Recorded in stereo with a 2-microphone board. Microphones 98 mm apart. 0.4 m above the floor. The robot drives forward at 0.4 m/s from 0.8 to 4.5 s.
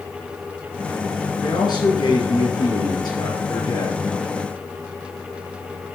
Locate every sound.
1.4 s a man speaking: 50° left (ahead or behind), 4 m; by 4.0 s 40° left (ahead or behind), 5 m